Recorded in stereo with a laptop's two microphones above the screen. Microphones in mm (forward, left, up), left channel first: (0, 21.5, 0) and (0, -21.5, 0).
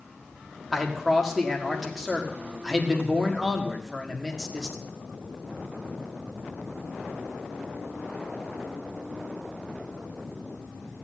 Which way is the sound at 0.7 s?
Centre (ahead or behind).